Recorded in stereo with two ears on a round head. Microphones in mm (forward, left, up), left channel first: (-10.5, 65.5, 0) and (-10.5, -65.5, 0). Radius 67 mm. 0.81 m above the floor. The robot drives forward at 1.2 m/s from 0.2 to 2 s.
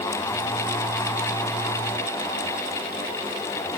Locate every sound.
Only background noise.